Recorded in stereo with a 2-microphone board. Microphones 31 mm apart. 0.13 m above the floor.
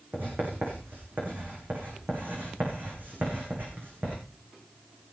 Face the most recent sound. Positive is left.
turn(degrees=-70)  # may be behind; listen again after turning